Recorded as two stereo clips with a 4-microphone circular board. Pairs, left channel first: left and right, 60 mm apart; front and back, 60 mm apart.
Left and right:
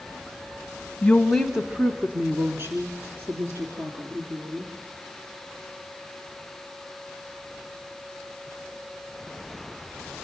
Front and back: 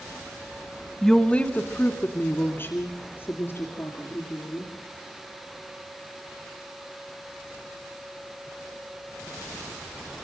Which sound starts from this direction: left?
A woman speaking, at 1.0 s.